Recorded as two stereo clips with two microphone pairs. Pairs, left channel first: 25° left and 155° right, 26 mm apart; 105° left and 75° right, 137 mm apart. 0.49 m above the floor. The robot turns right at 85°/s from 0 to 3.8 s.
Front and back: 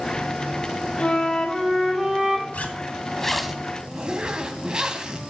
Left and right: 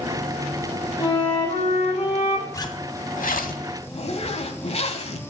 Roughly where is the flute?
Ahead left.